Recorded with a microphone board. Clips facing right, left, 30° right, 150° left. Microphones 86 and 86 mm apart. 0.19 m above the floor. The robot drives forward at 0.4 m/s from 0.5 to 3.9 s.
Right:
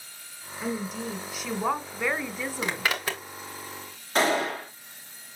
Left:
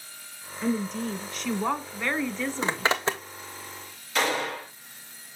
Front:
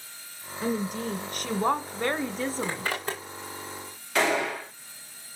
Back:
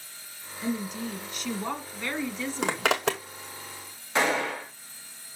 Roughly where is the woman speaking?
Ahead.